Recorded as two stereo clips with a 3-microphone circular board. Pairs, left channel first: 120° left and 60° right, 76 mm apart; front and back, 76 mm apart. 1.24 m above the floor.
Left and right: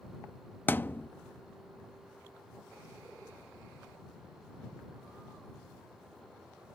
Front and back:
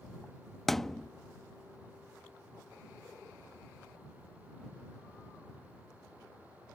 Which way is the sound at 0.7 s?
85° left.